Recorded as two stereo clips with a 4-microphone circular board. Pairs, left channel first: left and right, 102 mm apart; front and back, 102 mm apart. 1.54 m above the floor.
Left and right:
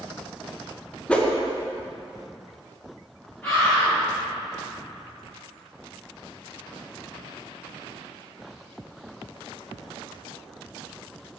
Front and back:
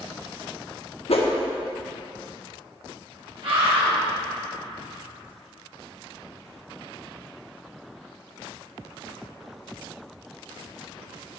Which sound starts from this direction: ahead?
A whoosh, at 1.1 s.